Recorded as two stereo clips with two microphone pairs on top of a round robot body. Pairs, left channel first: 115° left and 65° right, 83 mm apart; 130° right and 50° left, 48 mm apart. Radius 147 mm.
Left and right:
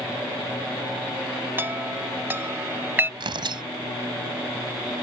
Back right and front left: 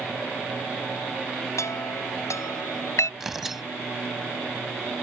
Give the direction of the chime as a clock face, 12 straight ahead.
4 o'clock.